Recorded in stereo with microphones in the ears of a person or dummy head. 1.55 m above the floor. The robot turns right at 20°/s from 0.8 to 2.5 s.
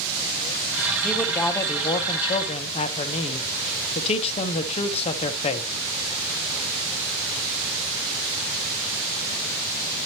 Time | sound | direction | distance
1.0 | a man speaking | 10° left (ahead or behind) | 1.0 m